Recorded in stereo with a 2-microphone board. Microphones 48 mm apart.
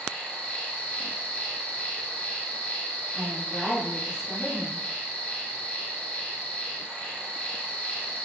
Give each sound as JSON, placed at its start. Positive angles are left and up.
{"t": 0.0, "sound": "an insect", "side_deg": 25, "distance_m": 1.7}
{"t": 3.1, "sound": "a woman speaking", "side_deg": -5, "distance_m": 1.5}